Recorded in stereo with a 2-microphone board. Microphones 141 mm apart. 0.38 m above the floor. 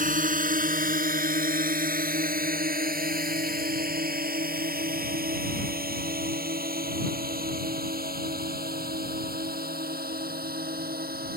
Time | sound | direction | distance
0.0 | a drone | 65° right (ahead or behind) | ?